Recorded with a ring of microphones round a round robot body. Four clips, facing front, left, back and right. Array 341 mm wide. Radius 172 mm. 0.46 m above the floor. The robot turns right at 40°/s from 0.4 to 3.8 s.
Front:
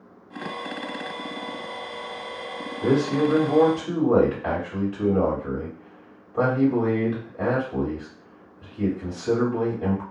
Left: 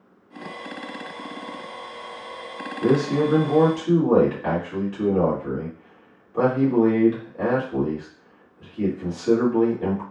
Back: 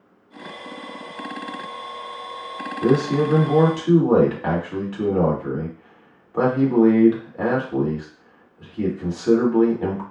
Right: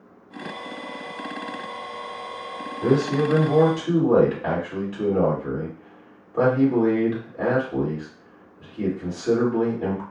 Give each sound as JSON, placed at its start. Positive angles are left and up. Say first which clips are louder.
{"t": 2.8, "sound": "a man speaking", "louder": "left 1 dB, back 2 dB", "azimuth_deg": 145, "distance_m": 1.7}